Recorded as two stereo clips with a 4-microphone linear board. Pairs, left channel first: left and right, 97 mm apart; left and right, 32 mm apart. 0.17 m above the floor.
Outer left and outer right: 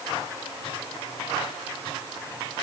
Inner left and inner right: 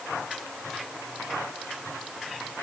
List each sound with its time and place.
Only background noise.